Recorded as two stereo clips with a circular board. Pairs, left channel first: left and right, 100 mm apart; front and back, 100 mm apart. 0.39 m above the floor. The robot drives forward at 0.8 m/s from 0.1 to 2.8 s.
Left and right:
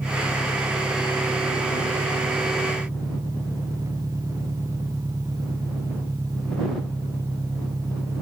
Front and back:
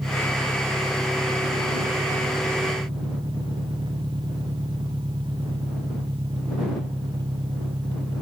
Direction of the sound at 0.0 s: 140° right.